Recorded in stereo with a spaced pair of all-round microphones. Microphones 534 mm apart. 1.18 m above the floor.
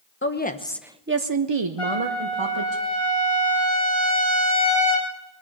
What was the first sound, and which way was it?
A woman speaking, 20° left (ahead or behind).